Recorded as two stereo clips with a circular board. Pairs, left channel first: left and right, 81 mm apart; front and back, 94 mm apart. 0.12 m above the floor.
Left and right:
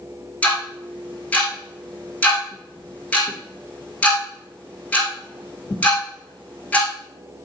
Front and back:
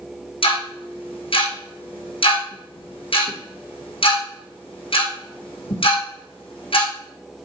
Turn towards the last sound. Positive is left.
turn(degrees=15)